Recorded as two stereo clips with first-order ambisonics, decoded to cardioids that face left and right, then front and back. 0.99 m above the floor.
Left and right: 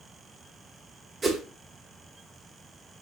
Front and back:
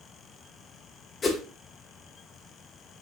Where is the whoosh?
40° right, 0.6 m.